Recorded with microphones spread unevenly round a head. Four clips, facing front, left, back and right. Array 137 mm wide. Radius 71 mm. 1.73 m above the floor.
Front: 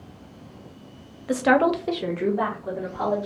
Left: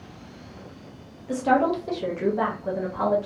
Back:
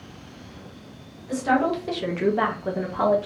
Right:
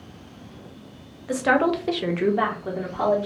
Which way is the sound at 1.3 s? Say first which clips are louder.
Right 1 dB, front 3 dB; 35° right.